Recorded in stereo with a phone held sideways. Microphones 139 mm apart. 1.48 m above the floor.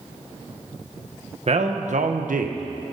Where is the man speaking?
50° right (ahead or behind), 1.5 m; by 2.6 s 80° right, 1.2 m.